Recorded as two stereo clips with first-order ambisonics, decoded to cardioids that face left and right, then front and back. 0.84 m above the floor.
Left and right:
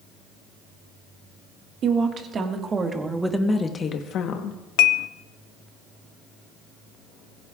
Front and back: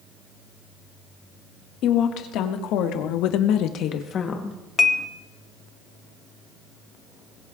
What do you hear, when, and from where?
1.8 s a woman speaking: 35° right, 2 m; by 4.6 s 70° left, 1.3 m
4.8 s dishes clattering: 75° left, 0.8 m